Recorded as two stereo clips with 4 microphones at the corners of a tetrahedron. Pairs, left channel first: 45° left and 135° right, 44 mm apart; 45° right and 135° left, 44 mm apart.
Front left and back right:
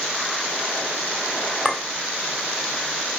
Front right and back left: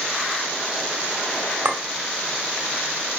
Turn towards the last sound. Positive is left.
turn(degrees=140)